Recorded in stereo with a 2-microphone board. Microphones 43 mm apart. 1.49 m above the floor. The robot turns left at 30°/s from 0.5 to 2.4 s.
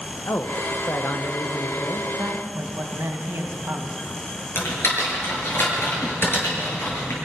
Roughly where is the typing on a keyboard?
Left.